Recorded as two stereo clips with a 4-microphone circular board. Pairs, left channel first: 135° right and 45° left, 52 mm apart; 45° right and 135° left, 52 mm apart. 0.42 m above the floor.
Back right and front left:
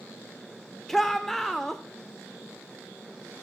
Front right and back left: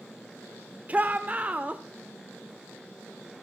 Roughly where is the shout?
Behind left.